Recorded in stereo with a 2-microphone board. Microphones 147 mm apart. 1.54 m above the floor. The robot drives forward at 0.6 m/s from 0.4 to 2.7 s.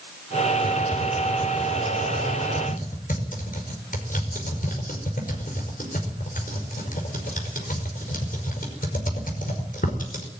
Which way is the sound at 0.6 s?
85° left.